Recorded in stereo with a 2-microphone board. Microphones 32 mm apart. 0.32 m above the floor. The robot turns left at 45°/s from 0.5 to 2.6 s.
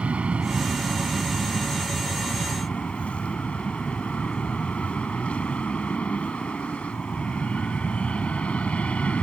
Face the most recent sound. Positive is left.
turn(degrees=130)